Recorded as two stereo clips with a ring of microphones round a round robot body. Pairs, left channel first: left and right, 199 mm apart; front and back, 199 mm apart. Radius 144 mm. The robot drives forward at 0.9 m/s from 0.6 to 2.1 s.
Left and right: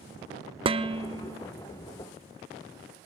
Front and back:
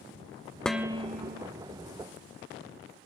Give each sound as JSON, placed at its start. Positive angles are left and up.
{"t": 0.7, "sound": "dishes clattering", "azimuth_deg": -80, "distance_m": 0.6}